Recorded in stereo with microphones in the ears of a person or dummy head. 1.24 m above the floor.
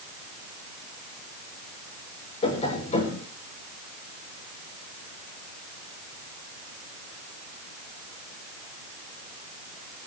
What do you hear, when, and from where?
2.4 s tapping: 30° left (ahead or behind), 5.5 m